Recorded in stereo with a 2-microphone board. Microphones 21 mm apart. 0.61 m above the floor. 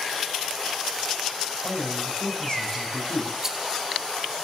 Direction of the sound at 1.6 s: 40° left (ahead or behind).